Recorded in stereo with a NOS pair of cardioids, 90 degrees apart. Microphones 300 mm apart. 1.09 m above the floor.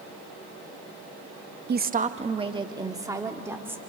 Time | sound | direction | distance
1.7 | a woman speaking | 35° right | 1.1 m